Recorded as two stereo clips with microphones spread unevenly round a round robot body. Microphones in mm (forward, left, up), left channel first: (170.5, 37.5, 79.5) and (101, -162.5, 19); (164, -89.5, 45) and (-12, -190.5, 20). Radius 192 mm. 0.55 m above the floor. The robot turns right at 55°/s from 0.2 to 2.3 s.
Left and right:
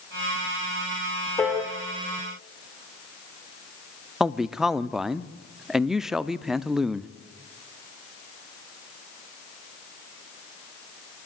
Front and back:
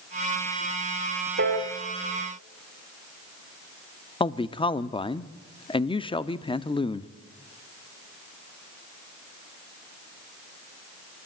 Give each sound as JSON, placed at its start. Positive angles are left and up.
{"t": 1.4, "sound": "a piano", "azimuth_deg": 160, "distance_m": 2.0}
{"t": 4.2, "sound": "a man speaking", "azimuth_deg": -35, "distance_m": 0.9}